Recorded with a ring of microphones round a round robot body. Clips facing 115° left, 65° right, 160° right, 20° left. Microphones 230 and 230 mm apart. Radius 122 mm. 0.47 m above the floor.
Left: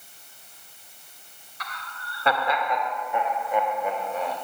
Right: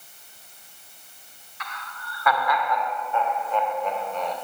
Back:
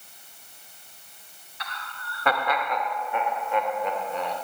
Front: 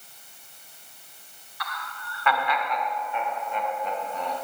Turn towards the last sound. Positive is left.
turn(degrees=-160)